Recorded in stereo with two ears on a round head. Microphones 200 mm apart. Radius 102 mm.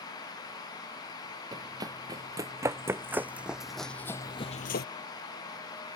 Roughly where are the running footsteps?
Centre.